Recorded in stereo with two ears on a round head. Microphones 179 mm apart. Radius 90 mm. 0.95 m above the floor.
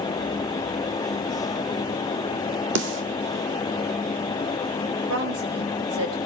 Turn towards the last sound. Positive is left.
turn(degrees=-80)